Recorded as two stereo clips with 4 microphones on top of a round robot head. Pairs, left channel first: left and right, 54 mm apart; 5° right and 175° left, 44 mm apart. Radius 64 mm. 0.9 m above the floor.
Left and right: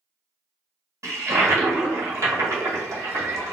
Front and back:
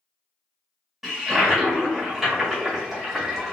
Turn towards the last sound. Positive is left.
turn(degrees=-110)